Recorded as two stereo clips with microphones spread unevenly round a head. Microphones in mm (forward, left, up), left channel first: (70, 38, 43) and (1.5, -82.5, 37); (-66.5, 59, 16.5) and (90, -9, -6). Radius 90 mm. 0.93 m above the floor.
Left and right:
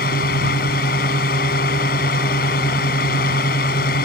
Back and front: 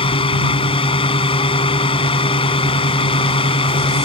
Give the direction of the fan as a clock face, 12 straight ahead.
9 o'clock.